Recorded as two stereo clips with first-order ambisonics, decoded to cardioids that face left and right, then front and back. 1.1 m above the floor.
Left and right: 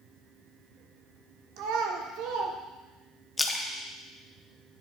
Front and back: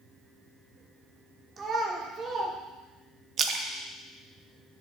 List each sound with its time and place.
1.6 s a child speaking: 115° right, 1.5 m
3.4 s a splash: 165° left, 0.7 m